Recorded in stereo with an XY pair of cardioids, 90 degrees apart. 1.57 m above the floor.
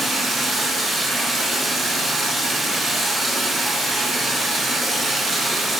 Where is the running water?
55° right, 1.4 m.